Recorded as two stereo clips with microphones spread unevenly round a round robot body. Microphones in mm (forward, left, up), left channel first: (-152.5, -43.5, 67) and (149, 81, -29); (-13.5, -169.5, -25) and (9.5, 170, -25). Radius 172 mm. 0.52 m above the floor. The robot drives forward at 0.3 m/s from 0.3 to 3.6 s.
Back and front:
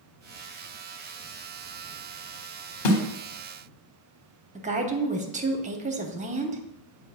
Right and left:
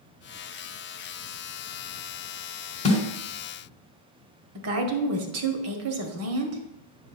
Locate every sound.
2.9 s a snare drum: 165° right, 1.7 m
4.5 s a woman speaking: 60° left, 0.9 m